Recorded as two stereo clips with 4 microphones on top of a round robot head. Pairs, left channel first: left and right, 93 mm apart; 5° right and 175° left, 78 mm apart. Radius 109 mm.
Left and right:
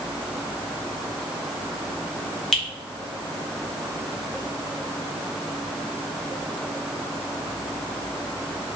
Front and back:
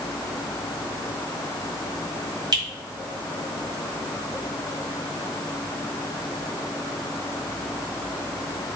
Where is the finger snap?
175° left, 2 m.